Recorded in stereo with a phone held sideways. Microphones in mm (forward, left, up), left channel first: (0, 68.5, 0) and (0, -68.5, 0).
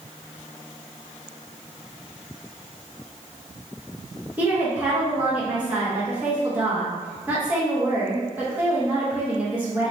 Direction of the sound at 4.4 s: 10° right (ahead or behind).